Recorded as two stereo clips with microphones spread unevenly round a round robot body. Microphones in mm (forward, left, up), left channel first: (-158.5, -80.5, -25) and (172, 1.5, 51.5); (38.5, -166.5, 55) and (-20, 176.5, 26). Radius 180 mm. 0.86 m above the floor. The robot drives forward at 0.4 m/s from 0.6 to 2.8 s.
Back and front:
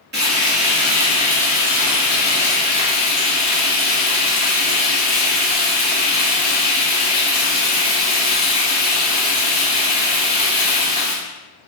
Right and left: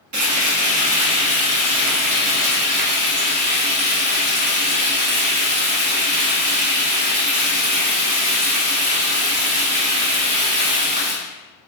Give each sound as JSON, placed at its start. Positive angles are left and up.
{"t": 0.1, "sound": "frying", "azimuth_deg": 80, "distance_m": 1.2}